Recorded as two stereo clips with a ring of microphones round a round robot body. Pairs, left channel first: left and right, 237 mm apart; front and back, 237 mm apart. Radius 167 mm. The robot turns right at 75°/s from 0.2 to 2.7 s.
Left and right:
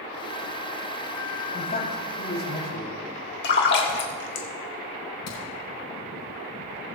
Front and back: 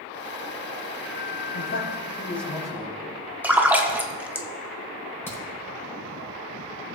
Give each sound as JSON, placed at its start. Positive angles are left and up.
{"t": 1.5, "sound": "a man speaking", "azimuth_deg": 20, "distance_m": 3.5}
{"t": 3.4, "sound": "a splash", "azimuth_deg": 100, "distance_m": 1.2}
{"t": 5.3, "sound": "a crack", "azimuth_deg": 80, "distance_m": 5.0}